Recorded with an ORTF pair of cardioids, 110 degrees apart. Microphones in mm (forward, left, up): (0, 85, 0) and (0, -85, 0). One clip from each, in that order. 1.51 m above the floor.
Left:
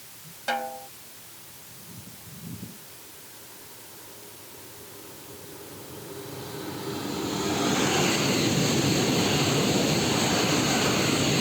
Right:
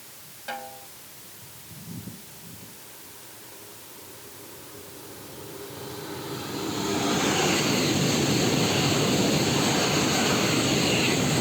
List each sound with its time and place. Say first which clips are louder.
0.5 s a snare drum: left 7 dB; 45° left